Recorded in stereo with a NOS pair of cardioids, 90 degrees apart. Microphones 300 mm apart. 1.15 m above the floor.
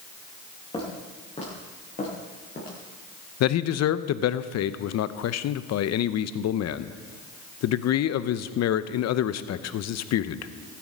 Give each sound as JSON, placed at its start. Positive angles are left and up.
{"t": 0.7, "sound": "footsteps", "azimuth_deg": 20, "distance_m": 7.5}
{"t": 3.4, "sound": "a man speaking", "azimuth_deg": 65, "distance_m": 0.8}